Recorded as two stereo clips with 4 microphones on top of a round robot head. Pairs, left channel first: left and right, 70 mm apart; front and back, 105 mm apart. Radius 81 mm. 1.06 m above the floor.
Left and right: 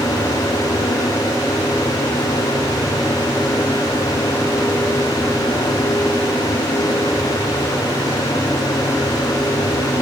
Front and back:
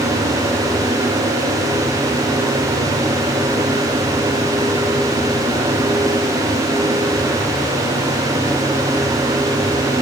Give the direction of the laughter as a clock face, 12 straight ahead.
I don't hear laughter.